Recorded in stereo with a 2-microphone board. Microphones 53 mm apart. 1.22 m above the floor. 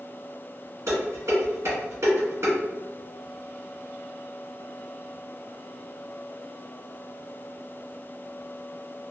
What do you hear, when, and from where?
0.9 s dishes clattering: 75° right (ahead or behind), 1.6 m